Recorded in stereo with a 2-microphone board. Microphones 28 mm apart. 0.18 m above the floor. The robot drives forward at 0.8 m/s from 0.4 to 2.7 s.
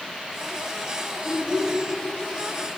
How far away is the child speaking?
About 1.9 m.